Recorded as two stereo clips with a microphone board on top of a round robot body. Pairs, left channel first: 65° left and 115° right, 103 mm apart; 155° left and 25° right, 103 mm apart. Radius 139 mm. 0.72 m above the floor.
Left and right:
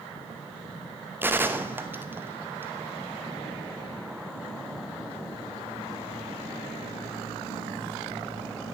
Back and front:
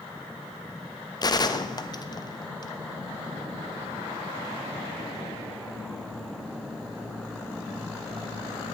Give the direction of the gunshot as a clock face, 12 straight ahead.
6 o'clock.